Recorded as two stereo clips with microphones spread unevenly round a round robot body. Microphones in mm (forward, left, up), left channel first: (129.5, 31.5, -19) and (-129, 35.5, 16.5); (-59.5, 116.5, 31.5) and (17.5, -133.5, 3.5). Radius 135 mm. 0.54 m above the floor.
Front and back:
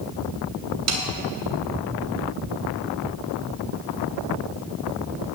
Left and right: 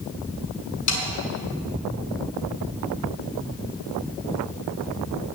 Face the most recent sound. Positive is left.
turn(degrees=145)